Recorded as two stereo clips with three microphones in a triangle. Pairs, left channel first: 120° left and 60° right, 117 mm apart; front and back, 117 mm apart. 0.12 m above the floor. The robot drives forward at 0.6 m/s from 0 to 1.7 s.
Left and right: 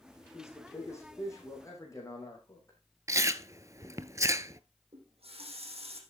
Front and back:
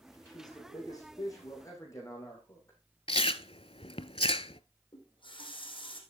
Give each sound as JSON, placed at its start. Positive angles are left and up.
{"t": 0.3, "sound": "a man speaking", "azimuth_deg": 55, "distance_m": 6.5}
{"t": 3.1, "sound": "chewing", "azimuth_deg": -5, "distance_m": 0.5}
{"t": 4.9, "sound": "a running tap", "azimuth_deg": -40, "distance_m": 4.0}